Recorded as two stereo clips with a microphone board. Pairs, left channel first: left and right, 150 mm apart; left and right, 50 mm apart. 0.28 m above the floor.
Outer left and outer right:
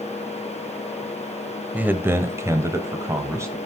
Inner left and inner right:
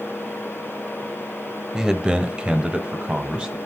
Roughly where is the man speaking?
Centre.